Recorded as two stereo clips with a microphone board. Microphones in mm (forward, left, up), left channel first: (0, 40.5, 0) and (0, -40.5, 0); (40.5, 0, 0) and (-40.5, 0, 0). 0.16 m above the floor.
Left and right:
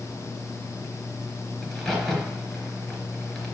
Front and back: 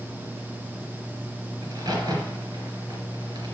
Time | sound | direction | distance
1.6 | a crack | 170° left | 3 m